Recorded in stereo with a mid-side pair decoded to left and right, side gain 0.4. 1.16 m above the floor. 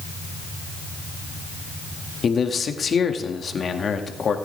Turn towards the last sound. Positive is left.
turn(degrees=45)